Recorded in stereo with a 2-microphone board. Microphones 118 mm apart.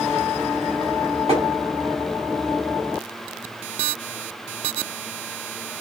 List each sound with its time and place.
1.3 s tapping: 50° right (ahead or behind), 1.6 m